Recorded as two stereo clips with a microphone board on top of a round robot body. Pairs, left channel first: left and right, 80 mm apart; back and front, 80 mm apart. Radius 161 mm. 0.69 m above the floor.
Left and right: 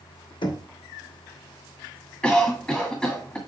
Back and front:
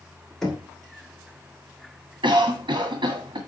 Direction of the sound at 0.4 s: 95° left.